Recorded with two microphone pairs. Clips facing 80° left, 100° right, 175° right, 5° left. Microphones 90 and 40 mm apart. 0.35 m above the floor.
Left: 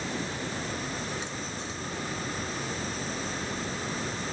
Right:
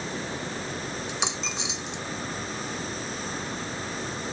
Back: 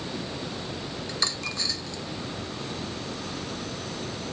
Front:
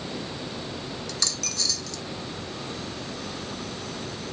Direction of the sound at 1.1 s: 110° right.